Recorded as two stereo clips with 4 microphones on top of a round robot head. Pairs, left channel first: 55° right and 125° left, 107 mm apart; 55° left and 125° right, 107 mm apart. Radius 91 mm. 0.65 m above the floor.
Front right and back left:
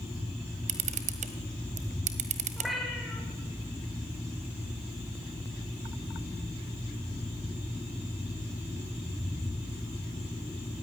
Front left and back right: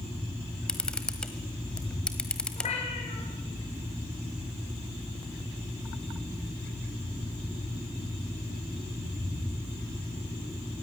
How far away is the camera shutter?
About 1.5 m.